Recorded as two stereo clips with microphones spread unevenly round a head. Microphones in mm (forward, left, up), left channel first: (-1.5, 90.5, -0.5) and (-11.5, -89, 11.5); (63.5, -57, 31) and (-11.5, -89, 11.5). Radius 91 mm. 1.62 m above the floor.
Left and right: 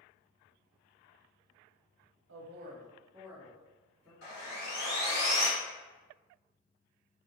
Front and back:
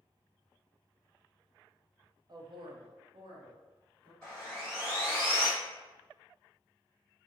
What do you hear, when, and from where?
2.3 s a man speaking: 115° right, 0.6 m; by 4.1 s 165° left, 1.1 m
4.2 s sawing: 100° left, 1.6 m